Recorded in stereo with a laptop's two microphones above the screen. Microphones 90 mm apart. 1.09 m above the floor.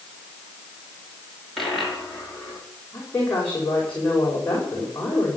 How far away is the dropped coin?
About 4 m.